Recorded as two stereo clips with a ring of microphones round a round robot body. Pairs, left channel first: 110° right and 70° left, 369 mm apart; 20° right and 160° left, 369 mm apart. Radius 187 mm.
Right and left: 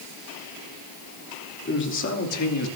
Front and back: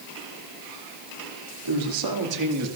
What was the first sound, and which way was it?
A man speaking, 175° right.